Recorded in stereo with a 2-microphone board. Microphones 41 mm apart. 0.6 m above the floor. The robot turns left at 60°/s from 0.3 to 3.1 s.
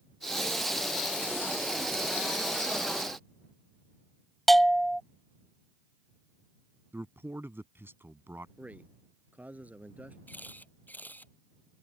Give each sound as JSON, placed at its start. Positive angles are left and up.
{"t": 4.5, "sound": "a bell", "side_deg": 5}
{"t": 6.9, "sound": "a man speaking", "side_deg": -75}
{"t": 8.6, "sound": "a man speaking", "side_deg": -45}
{"t": 10.3, "sound": "a camera shutter", "side_deg": 45}